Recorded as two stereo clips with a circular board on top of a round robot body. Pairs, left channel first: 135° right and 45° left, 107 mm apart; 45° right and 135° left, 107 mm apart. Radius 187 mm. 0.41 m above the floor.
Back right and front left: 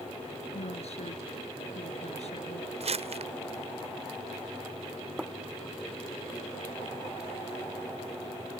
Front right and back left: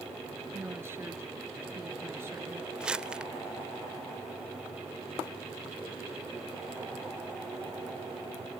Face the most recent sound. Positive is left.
turn(degrees=55)